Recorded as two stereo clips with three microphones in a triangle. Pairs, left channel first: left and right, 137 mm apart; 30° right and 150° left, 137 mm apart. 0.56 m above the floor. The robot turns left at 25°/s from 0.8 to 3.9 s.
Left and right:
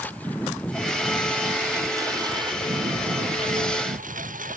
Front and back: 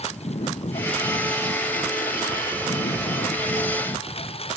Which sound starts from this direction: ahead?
A lawn mower, at 0.0 s.